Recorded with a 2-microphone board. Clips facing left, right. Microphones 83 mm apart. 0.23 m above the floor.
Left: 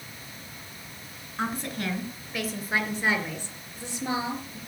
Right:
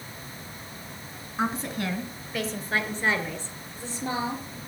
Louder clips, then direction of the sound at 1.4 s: Right 2 dB; 10° right (ahead or behind).